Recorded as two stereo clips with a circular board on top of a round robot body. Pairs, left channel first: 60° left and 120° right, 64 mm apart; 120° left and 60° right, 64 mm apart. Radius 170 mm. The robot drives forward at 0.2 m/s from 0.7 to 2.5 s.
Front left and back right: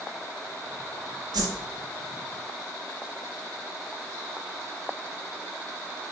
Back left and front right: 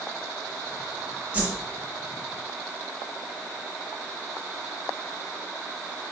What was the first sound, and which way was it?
A whoosh, 130° right.